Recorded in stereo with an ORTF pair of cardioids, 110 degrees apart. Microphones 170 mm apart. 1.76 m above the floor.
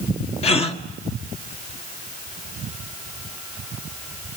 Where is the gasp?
35° left, 1.7 m.